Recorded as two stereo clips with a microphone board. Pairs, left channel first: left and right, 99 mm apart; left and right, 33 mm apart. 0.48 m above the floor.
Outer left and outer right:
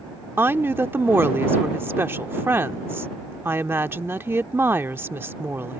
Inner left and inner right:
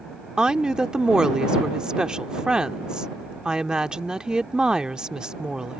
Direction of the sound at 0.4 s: 25° right (ahead or behind).